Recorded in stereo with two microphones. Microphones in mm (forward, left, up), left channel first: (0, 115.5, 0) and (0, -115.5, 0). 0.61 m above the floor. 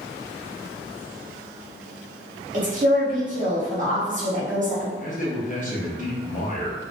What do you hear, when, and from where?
2.5 s a woman speaking: 35° right (ahead or behind), 1.0 m
5.0 s a man speaking: 35° left (ahead or behind), 0.7 m